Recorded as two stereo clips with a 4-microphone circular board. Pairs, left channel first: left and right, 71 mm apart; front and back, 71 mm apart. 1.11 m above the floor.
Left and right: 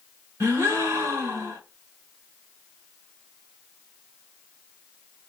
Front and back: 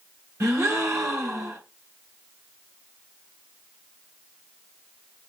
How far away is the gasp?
About 1.1 m.